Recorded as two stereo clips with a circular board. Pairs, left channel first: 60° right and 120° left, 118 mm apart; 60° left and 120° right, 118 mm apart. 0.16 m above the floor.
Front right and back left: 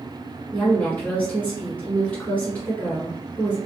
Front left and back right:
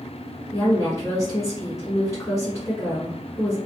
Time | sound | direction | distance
0.5 | a woman speaking | 10° left | 1.9 m